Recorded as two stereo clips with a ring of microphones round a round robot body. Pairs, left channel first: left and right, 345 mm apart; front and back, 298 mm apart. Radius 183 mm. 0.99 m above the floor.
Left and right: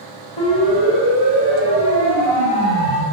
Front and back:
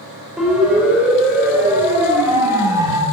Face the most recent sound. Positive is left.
turn(degrees=100)